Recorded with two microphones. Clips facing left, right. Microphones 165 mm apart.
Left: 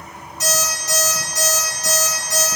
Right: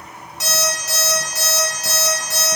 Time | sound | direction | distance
0.4 | an alarm clock | 75° right (ahead or behind) | 1.9 m